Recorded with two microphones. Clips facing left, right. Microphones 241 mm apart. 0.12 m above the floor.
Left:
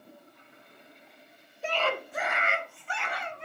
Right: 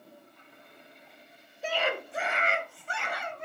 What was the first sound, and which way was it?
A scream, centre (ahead or behind).